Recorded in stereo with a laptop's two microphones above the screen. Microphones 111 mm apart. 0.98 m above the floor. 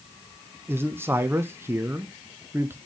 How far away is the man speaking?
About 0.6 m.